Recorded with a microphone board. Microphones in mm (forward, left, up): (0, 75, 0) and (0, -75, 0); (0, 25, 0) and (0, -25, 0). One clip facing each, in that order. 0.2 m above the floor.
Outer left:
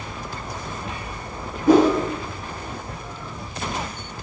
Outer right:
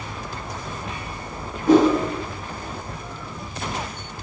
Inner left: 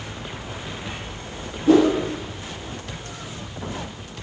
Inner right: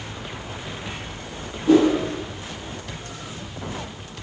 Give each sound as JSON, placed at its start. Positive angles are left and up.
{"t": 1.7, "sound": "a whoosh", "side_deg": 10, "distance_m": 2.0}